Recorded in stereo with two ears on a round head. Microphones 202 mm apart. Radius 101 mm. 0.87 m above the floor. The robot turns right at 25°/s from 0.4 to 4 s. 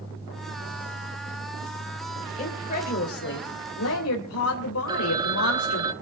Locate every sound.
2.4 s a woman speaking: 30° left, 3 m; by 5.9 s 70° left, 3 m
4.9 s a phone ringing: 20° right (ahead or behind), 0.9 m